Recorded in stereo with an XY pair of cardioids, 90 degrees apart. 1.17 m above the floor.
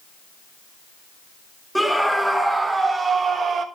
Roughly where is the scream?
Ahead.